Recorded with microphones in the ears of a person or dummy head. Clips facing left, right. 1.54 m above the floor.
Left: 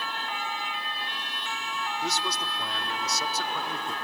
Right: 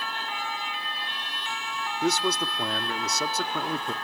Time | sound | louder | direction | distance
2.0 | a man speaking | right 10 dB | 40° right (ahead or behind) | 0.7 m